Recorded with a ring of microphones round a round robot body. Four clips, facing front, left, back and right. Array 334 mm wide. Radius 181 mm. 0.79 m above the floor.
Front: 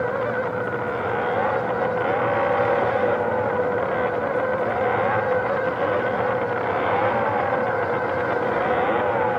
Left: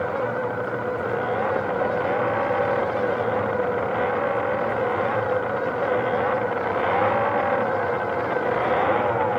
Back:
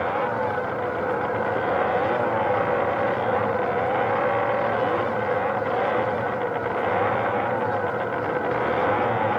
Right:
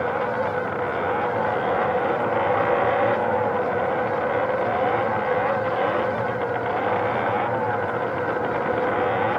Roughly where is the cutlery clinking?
I don't hear cutlery clinking.